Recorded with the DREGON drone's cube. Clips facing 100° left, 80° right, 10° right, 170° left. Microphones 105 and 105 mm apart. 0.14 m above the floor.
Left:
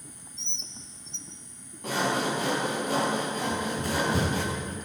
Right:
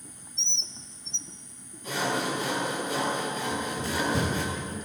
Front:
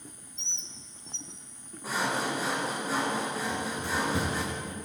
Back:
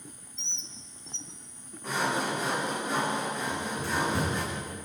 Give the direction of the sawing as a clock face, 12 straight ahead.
10 o'clock.